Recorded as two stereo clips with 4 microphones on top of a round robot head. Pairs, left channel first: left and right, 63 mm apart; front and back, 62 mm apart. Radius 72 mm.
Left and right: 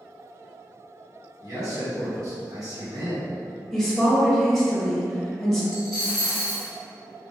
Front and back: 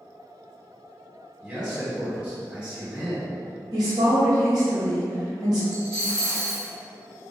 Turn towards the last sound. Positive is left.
turn(degrees=5)